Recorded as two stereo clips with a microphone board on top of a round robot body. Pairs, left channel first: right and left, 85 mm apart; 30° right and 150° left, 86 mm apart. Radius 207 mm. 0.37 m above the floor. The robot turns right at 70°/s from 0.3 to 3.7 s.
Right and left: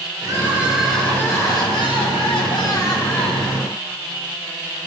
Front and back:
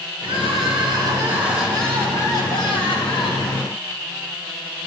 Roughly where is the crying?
Behind left.